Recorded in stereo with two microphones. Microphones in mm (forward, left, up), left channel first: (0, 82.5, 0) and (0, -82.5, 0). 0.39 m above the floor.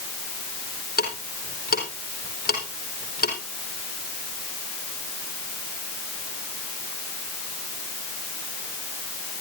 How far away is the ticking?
About 4.5 m.